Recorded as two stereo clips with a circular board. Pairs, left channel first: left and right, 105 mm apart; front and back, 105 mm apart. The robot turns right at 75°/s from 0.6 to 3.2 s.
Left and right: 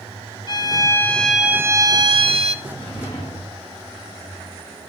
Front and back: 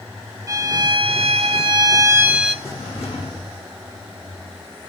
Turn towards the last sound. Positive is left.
turn(degrees=35)